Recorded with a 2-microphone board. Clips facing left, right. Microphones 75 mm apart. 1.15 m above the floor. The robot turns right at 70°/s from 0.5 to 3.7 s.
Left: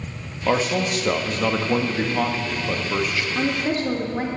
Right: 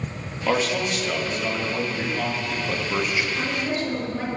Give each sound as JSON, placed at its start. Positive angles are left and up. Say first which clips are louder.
{"t": 0.5, "sound": "a man speaking", "louder": "left 2 dB", "azimuth_deg": 5, "distance_m": 1.4}
{"t": 3.4, "sound": "a woman speaking", "louder": "left 3 dB", "side_deg": 55, "distance_m": 2.0}